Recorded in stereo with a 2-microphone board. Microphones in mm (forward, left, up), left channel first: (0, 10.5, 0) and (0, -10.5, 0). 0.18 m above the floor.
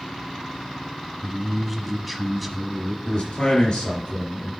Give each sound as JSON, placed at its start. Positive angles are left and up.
{"t": 1.2, "sound": "a man speaking", "side_deg": 0, "distance_m": 1.0}
{"t": 3.0, "sound": "a man speaking", "side_deg": 65, "distance_m": 3.5}